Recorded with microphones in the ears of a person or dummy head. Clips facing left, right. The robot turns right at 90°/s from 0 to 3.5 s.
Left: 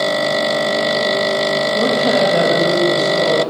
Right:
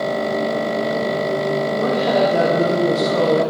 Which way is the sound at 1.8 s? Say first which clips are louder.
Left 2 dB; 105° left.